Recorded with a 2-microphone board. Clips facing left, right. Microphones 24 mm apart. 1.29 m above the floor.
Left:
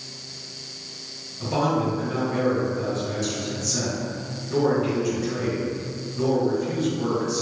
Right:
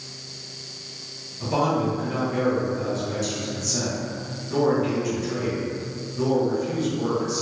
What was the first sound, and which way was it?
A man speaking, 5° right (ahead or behind).